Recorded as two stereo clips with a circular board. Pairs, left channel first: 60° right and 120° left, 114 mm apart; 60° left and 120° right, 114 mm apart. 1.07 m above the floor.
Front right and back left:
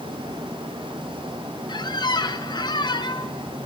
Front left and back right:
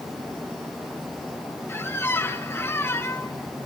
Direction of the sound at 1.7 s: 10° right.